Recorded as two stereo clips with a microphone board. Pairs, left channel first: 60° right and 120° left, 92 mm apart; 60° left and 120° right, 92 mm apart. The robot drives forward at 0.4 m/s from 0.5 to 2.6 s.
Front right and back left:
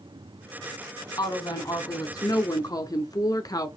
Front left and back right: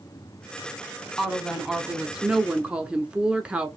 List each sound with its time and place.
1.2 s a woman speaking: 25° right, 1.3 m; by 3.7 s 45° right, 0.9 m